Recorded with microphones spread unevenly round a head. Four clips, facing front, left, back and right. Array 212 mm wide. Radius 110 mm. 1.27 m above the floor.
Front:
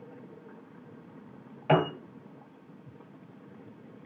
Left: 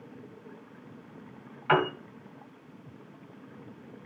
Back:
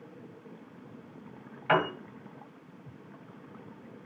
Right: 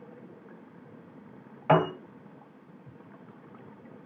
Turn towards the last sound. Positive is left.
turn(degrees=-60)